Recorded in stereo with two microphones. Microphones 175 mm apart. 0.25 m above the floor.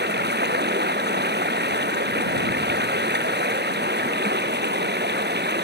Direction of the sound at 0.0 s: 75° right (ahead or behind).